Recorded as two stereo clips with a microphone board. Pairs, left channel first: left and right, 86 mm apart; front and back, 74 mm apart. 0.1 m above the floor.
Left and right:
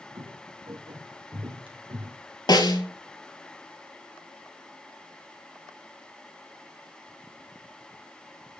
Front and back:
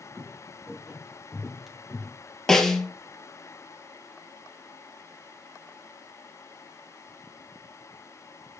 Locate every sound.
0.1 s footsteps: 115° right, 4 m; by 2.2 s 75° right, 3 m
2.5 s a snare drum: 80° left, 1.5 m